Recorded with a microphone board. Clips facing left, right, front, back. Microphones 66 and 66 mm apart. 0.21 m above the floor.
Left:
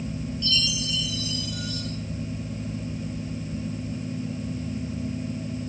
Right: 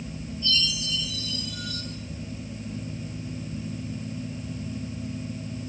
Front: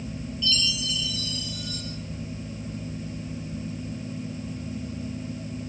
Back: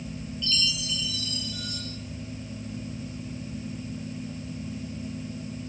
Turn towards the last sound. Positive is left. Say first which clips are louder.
# right 1 dB, front 3 dB
turn(degrees=90)